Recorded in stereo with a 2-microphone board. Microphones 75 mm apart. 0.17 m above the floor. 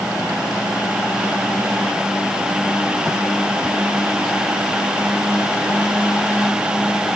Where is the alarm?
I don't hear an alarm.